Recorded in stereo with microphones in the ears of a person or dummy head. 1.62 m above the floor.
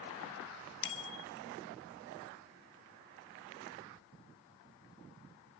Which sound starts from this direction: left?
A bicycle bell, at 0.8 s.